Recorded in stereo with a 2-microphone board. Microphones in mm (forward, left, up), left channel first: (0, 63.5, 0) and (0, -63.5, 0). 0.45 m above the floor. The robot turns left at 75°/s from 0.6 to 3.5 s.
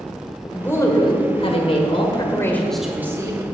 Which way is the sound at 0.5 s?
165° left.